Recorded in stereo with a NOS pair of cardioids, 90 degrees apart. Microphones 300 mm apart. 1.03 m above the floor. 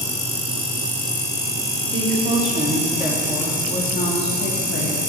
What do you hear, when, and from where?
1.9 s a woman speaking: 40° right, 2.5 m; by 5.0 s 55° left, 3 m